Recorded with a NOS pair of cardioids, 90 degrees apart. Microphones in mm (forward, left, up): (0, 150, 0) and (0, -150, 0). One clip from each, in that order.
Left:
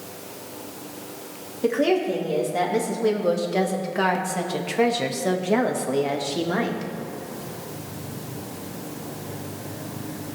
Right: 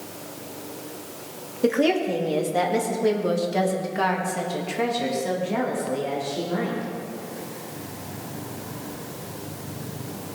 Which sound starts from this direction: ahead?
A woman speaking, at 1.6 s.